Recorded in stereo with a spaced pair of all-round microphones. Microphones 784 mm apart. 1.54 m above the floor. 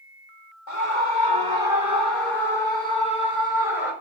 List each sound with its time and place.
0.7 s a scream: 70° left (ahead or behind), 3.5 m; by 3.9 s 80° left, 6 m